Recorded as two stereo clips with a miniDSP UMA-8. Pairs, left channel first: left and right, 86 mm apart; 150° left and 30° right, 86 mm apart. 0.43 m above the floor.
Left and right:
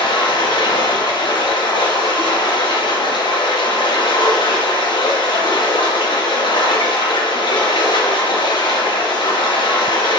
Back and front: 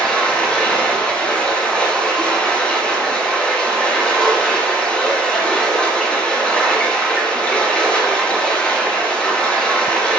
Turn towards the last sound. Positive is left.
turn(degrees=70)